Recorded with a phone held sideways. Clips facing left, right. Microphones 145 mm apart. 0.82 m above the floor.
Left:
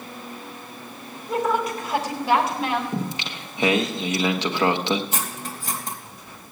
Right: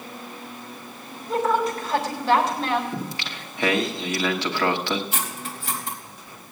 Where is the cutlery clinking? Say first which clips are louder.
Left 1 dB; 50° left (ahead or behind), 3.5 m.